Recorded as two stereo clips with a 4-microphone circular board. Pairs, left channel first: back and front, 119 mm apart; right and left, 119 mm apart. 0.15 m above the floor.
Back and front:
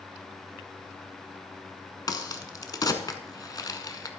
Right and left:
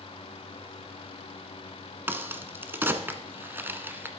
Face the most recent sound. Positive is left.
turn(degrees=150)